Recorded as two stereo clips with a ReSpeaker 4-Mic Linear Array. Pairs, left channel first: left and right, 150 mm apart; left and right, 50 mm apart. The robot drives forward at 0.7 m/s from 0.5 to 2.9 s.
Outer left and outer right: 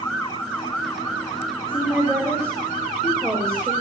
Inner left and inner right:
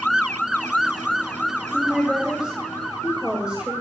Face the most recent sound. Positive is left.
turn(degrees=-20)  # may be behind; listen again after turning